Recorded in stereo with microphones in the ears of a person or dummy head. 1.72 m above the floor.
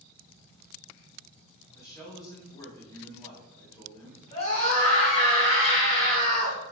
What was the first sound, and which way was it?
A man speaking, 20° left (ahead or behind).